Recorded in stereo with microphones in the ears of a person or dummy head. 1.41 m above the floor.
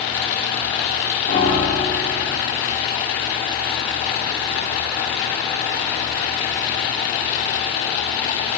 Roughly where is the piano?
Left.